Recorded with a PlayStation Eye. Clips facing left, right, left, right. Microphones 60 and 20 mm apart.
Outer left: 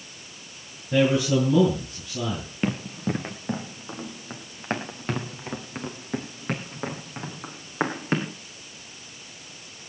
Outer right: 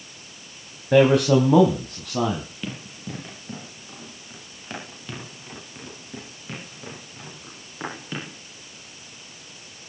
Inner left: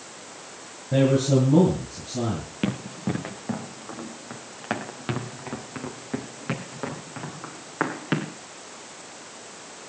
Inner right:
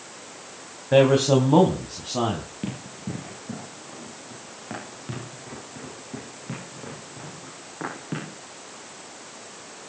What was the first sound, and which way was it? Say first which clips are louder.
A man speaking: outer right 5 dB, inner right 3 dB; 75° right (ahead or behind).